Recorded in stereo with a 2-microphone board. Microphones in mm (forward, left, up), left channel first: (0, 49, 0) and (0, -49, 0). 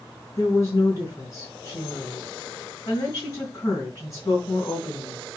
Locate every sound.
0.4 s a woman speaking: 35° left (ahead or behind), 3.5 m